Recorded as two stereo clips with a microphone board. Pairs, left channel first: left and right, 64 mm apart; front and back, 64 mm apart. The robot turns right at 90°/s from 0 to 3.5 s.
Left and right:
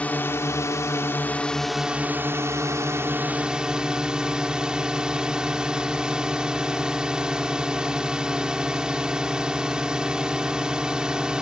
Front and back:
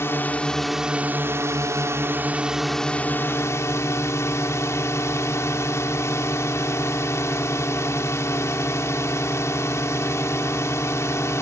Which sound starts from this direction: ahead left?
A drone, at 0.0 s.